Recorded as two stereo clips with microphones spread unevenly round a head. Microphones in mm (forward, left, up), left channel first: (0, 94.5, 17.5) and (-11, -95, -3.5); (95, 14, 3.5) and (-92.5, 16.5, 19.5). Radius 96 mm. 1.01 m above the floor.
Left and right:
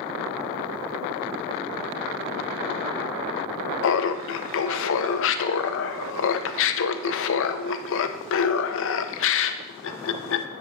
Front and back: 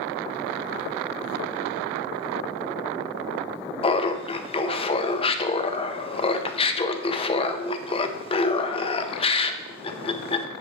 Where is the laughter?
60° left, 0.6 m.